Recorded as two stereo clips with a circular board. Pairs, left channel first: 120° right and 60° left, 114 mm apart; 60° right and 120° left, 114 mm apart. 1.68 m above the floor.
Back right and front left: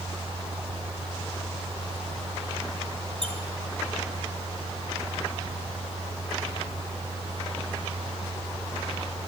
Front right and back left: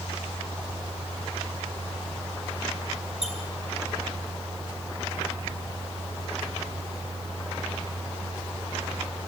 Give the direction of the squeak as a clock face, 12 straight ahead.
11 o'clock.